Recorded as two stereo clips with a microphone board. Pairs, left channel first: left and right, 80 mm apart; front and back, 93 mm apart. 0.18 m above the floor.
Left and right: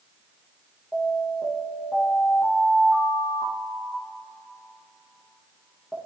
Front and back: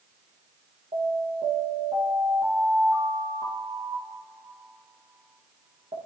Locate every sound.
0.9 s an alarm: 165° right, 8 m